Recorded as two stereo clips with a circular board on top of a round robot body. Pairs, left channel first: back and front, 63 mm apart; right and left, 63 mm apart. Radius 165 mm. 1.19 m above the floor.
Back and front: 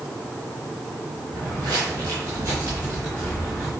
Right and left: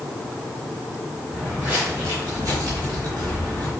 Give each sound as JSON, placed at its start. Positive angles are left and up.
{"t": 1.3, "sound": "footsteps", "azimuth_deg": 10, "distance_m": 1.6}